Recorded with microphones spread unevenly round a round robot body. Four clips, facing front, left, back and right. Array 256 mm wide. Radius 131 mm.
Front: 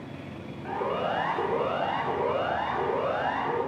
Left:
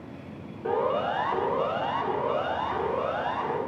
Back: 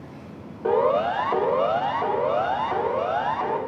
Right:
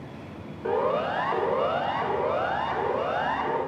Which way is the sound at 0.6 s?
175° right.